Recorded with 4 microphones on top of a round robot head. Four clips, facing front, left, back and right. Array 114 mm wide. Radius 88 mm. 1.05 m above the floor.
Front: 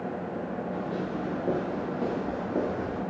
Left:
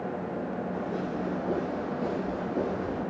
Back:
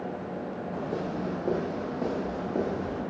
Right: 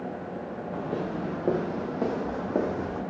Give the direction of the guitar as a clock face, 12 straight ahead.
No guitar in this recording.